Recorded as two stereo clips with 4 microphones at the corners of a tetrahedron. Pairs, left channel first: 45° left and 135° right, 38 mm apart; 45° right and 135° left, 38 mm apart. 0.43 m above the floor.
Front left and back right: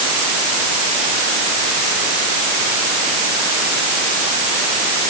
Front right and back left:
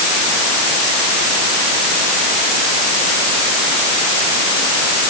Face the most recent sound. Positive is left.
No sound to turn to.